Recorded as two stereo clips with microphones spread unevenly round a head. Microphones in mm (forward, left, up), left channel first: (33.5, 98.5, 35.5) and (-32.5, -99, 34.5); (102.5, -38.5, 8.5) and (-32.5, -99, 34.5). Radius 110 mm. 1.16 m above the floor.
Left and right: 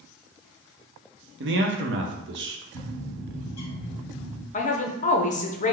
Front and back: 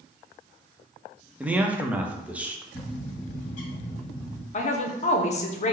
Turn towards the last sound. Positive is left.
turn(degrees=25)